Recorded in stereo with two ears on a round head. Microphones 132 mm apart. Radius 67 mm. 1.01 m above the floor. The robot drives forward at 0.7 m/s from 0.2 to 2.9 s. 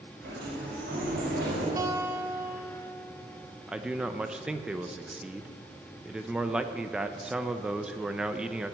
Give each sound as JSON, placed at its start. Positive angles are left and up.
{"t": 0.2, "sound": "a sliding door", "side_deg": -80, "distance_m": 5.5}
{"t": 1.8, "sound": "a guitar", "side_deg": -25, "distance_m": 0.8}
{"t": 3.7, "sound": "a man speaking", "side_deg": -5, "distance_m": 0.5}